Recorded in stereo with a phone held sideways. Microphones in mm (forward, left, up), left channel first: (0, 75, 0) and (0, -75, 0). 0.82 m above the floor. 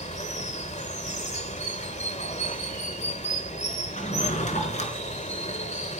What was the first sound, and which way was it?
Running water, 50° left (ahead or behind).